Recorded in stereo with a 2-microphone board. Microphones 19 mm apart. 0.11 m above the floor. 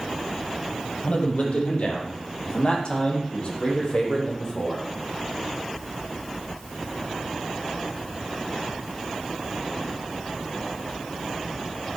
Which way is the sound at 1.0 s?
65° left (ahead or behind).